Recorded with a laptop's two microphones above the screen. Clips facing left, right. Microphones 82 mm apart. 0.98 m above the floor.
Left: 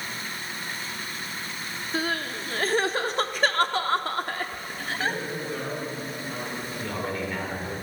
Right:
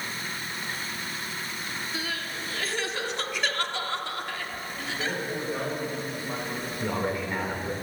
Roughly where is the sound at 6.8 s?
Right.